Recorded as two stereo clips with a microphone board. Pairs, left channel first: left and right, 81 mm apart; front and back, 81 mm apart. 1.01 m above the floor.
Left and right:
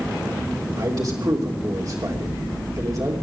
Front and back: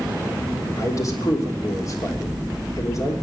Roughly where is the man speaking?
Ahead right.